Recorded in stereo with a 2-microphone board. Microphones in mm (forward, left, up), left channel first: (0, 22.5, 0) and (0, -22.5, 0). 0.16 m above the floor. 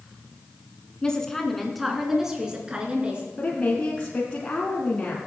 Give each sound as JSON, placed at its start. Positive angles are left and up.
{"t": 1.0, "sound": "a woman speaking", "side_deg": 20, "distance_m": 2.0}
{"t": 3.4, "sound": "a woman speaking", "side_deg": 25, "distance_m": 2.0}